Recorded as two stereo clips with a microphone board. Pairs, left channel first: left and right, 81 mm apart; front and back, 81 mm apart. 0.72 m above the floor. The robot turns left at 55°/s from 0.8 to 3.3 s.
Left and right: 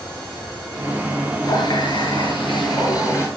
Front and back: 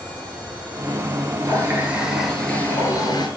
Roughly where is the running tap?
Behind left.